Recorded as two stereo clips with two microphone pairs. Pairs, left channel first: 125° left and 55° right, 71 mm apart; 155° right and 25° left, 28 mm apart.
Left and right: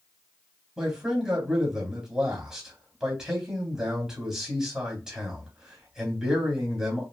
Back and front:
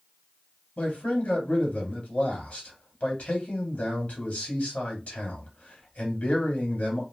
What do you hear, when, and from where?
0.8 s a man speaking: 140° right, 3 m